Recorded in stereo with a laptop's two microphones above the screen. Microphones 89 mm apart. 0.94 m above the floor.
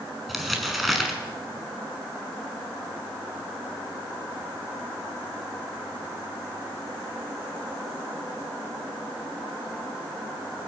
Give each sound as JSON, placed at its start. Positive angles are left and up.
{"t": 0.3, "sound": "crumpling", "side_deg": 0, "distance_m": 6.0}